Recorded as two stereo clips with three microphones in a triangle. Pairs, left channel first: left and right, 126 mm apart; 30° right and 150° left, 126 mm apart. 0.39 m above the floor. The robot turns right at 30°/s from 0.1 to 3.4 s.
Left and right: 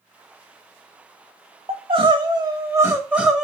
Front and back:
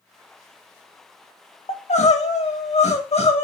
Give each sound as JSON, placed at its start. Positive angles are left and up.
{"t": 1.7, "sound": "crying", "azimuth_deg": -55, "distance_m": 0.6}